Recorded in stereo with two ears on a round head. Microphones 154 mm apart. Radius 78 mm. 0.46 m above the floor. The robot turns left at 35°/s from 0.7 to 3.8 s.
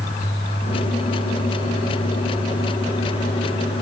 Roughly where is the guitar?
I don't hear a guitar.